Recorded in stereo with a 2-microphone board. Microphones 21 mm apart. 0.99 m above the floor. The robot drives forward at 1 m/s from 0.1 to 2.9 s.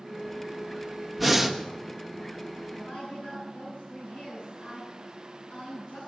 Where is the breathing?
5° right (ahead or behind), 1.4 m.